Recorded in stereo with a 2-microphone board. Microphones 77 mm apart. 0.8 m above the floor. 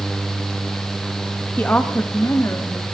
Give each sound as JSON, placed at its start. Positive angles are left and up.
{"t": 1.6, "sound": "a woman speaking", "side_deg": 20, "distance_m": 0.8}